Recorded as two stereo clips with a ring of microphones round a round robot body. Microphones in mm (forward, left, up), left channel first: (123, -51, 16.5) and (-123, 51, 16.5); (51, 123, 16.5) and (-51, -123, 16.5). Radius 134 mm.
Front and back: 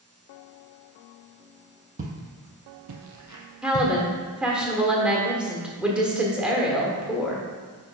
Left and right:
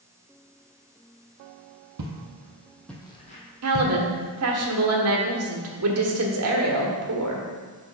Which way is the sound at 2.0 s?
140° right.